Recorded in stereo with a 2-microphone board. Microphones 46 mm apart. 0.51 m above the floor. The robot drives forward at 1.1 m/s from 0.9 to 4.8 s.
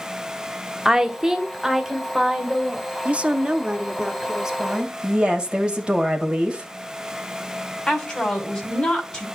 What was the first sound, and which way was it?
A woman speaking, 10° right (ahead or behind).